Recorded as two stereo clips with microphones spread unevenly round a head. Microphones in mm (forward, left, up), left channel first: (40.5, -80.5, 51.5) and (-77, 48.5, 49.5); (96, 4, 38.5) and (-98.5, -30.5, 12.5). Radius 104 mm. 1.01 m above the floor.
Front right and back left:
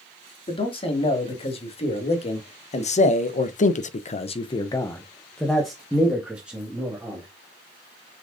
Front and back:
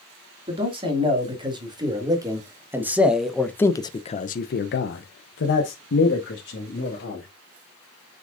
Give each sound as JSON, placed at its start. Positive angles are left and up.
{"t": 0.5, "sound": "a man speaking", "azimuth_deg": -110, "distance_m": 3.0}